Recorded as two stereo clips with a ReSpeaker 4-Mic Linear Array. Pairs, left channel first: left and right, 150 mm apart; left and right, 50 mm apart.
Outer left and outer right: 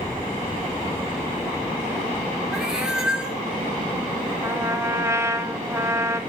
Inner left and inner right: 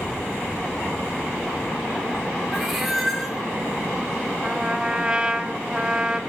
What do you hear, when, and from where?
2.5 s a cat meowing: 5° right (ahead or behind), 1.7 m
4.4 s a trumpet: 20° right (ahead or behind), 0.9 m